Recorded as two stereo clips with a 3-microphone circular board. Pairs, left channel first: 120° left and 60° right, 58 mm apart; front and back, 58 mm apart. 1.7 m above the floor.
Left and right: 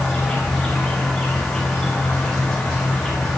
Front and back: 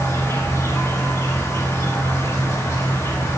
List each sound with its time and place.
0.0 s an insect: 35° left, 5 m